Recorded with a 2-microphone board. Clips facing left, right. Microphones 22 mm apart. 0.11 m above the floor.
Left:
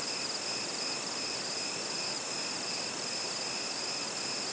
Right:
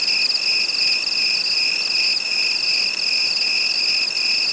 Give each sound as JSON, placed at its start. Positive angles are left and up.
{"t": 0.0, "sound": "an insect", "side_deg": -65}